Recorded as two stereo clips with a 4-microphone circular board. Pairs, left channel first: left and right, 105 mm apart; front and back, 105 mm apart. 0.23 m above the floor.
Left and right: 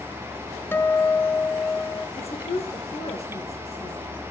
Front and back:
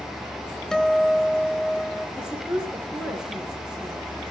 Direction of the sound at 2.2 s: 95° left.